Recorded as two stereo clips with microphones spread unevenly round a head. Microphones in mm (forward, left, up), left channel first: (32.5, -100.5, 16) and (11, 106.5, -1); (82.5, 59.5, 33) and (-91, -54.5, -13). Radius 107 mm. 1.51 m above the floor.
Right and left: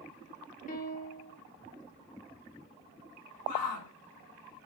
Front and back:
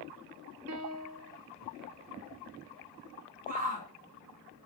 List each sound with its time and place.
0.7 s a piano: 130° right, 2.0 m
3.5 s a shout: 90° right, 3.5 m